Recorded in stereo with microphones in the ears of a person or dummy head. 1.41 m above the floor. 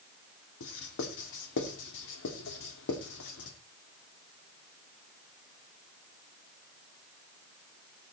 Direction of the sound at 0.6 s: 80° left.